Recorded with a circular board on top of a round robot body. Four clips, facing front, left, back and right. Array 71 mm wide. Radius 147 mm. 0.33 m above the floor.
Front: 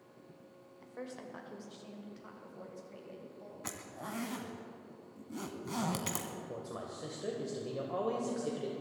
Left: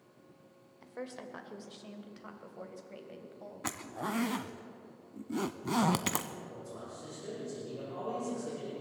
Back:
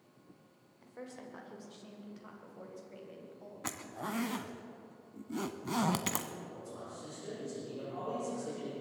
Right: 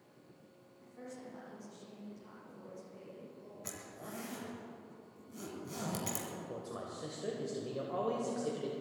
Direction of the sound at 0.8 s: 80° left.